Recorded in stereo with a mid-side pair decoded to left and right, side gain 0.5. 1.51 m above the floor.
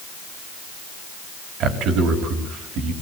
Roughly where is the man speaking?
Right.